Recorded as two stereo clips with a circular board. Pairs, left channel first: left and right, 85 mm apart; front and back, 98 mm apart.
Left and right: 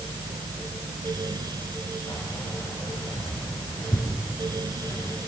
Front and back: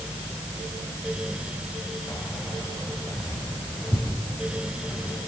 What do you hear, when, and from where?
2.1 s keys jangling: 45° left, 5 m